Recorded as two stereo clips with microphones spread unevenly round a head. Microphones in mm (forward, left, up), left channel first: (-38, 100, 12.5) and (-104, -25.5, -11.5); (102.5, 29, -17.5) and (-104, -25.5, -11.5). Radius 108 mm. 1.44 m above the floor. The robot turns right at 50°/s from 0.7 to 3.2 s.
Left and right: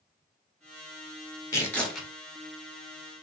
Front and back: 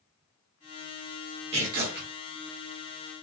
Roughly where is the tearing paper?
Behind left.